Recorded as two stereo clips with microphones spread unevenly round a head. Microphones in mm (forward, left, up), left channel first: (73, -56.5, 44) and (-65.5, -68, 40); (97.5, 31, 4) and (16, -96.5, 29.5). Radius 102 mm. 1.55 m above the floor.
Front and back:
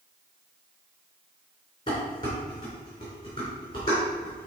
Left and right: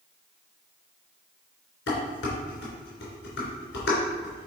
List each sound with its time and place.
1.9 s dishes clattering: 75° left, 3 m